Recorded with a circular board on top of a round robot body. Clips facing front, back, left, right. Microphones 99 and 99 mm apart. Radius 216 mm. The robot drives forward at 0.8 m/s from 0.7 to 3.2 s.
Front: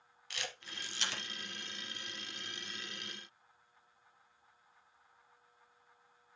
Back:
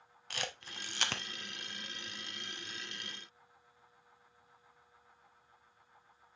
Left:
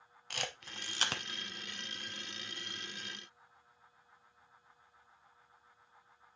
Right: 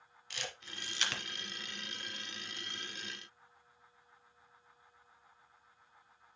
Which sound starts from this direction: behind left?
A camera shutter, at 0.3 s.